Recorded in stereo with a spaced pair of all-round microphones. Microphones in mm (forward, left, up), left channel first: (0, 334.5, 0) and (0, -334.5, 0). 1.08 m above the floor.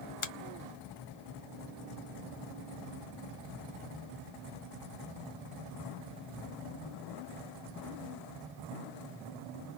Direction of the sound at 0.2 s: 50° left (ahead or behind).